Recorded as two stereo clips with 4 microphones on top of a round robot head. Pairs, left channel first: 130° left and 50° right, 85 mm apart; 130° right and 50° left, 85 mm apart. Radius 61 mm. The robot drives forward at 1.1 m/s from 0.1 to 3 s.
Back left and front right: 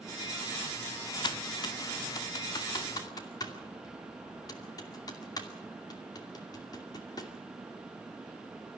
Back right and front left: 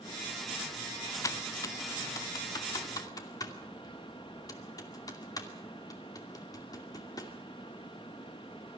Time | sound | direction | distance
1.2 | typing on a keyboard | 170° left | 0.6 m